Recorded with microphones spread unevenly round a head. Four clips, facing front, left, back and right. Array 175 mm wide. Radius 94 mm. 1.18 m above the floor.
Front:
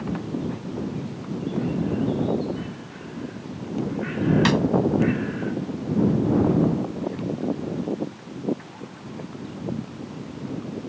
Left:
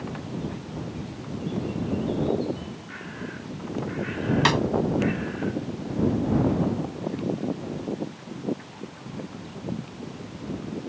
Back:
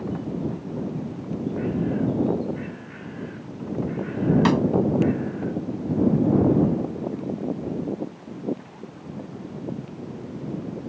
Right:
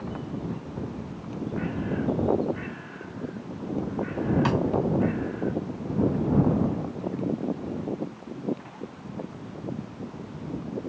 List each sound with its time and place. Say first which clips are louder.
4.5 s a snare drum: left 2 dB, back 1 dB; 85° left